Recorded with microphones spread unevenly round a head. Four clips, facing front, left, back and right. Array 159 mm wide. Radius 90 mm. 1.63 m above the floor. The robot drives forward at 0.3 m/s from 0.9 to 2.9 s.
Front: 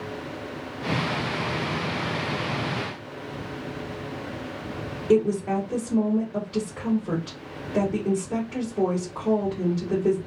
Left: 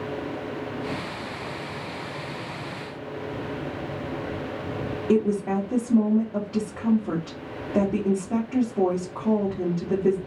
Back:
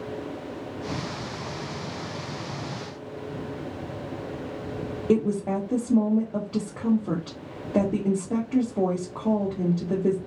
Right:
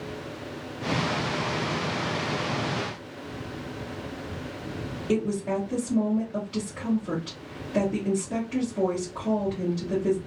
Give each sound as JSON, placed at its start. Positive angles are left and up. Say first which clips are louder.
{"t": 5.1, "sound": "a woman speaking", "louder": "left 4 dB, front 2 dB", "azimuth_deg": 155, "distance_m": 1.2}